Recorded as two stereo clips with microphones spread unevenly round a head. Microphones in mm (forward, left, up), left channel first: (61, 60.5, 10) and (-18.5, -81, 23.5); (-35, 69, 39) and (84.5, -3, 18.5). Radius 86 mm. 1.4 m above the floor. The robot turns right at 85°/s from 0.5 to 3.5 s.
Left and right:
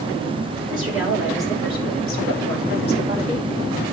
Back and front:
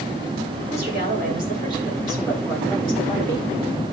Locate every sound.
0.7 s a woman speaking: 90° right, 6 m; by 3.5 s 145° left, 6 m